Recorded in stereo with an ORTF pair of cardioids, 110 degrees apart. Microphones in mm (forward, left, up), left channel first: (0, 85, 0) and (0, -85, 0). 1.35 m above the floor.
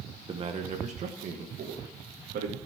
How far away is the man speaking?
About 1.2 m.